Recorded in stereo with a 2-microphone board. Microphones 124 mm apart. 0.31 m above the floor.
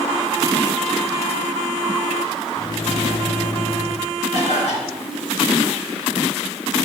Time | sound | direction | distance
2.6 | a microwave | 45° left (ahead or behind) | 1.1 m
4.3 | a cough | 75° left (ahead or behind) | 4 m